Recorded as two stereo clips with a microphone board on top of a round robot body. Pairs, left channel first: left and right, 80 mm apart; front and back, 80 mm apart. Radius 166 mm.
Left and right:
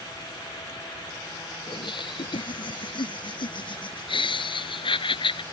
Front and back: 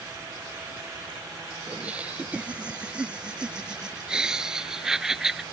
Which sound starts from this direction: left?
Laughter, at 1.7 s.